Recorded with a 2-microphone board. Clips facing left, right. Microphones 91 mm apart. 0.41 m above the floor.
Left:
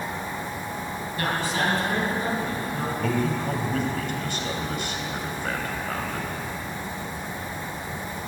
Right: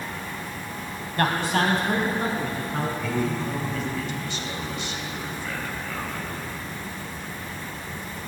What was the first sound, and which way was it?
A man speaking, 55° right (ahead or behind).